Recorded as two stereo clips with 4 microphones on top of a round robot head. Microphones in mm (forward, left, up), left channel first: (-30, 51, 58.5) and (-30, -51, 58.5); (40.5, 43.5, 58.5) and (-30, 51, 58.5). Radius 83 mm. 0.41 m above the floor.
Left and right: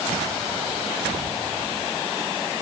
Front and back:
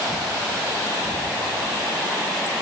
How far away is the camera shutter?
No camera shutter in this recording.